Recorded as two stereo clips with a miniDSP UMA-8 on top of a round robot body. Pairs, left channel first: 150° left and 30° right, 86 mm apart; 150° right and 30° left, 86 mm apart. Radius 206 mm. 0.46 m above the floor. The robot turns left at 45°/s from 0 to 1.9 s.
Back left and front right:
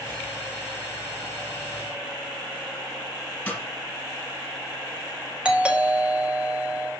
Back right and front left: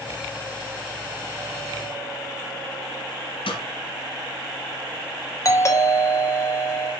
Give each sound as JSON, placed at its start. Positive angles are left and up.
{"t": 3.5, "sound": "a snare drum", "azimuth_deg": -140, "distance_m": 2.5}
{"t": 5.5, "sound": "a doorbell", "azimuth_deg": -105, "distance_m": 2.5}